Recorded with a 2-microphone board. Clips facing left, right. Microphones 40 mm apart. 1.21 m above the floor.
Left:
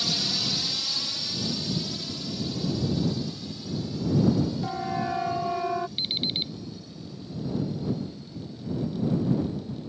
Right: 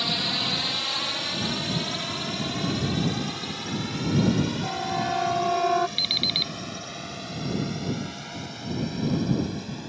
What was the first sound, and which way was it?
A drone, 30° right (ahead or behind).